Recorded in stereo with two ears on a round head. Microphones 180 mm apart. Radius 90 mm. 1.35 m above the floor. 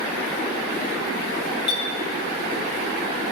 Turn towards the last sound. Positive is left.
turn(degrees=25)  # may be behind; listen again after turning